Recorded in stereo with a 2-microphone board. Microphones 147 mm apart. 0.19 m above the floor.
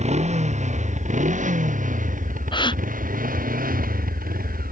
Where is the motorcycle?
50° right (ahead or behind); by 4.7 s 80° right.